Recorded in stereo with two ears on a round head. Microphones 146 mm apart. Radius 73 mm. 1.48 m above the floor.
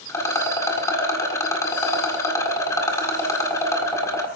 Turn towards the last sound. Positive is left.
turn(degrees=20)  # may be behind; listen again after turning